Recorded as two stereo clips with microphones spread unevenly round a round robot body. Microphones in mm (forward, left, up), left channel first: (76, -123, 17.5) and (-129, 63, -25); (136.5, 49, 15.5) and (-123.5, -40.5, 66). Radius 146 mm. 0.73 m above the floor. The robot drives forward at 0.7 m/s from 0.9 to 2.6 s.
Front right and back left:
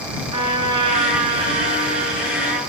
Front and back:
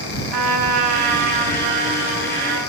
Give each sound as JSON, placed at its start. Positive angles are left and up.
{"t": 0.3, "sound": "a trumpet", "azimuth_deg": -155, "distance_m": 5.5}